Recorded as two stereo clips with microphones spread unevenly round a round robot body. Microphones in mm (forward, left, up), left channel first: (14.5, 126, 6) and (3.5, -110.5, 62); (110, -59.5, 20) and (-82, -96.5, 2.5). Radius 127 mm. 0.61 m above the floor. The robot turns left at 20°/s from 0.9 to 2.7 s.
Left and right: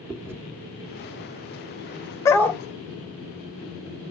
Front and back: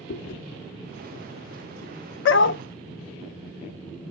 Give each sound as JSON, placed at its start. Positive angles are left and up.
{"t": 0.1, "sound": "chewing", "azimuth_deg": -5, "distance_m": 1.4}
{"t": 2.2, "sound": "a dog barking", "azimuth_deg": 5, "distance_m": 0.7}